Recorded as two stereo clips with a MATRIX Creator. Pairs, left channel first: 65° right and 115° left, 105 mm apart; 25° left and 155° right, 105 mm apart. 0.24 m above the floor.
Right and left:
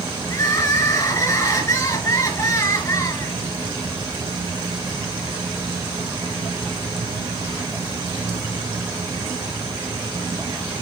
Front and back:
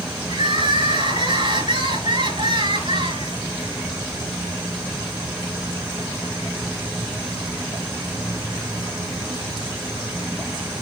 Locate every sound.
0.3 s crying: 125° right, 3.5 m